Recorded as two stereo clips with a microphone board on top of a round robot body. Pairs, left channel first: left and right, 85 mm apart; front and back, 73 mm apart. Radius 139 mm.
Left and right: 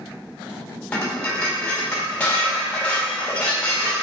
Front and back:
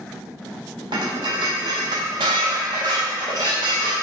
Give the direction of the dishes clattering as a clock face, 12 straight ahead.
6 o'clock.